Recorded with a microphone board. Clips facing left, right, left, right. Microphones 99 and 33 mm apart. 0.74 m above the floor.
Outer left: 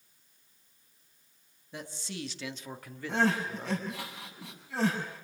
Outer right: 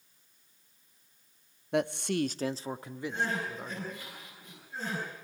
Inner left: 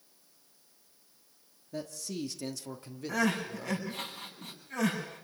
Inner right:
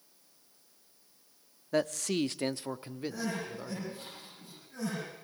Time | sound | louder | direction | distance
1.7 | a man speaking | outer right 13 dB, inner right 9 dB | 65° right (ahead or behind) | 0.8 m
3.1 | crying | outer left 6 dB, inner left 9 dB | 75° left (ahead or behind) | 7.5 m